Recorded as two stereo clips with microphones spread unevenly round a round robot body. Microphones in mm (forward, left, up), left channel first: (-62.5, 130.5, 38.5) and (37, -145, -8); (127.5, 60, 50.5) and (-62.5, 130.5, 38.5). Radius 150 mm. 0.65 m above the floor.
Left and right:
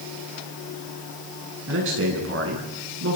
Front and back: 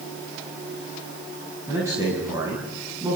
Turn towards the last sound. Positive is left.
turn(degrees=-120)